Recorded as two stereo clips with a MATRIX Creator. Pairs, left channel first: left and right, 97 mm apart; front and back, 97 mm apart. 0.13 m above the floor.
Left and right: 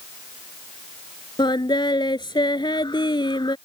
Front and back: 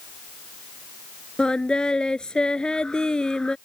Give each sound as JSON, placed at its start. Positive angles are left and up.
{"t": 1.4, "sound": "singing", "azimuth_deg": 80}